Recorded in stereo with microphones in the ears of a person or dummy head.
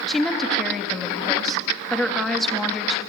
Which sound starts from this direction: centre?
A woman speaking, at 0.1 s.